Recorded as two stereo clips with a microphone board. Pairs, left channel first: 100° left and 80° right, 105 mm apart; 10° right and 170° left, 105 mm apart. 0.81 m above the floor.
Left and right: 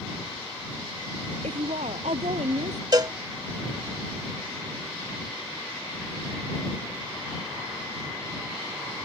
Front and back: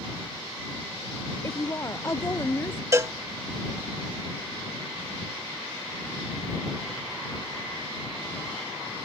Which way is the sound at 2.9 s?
125° right.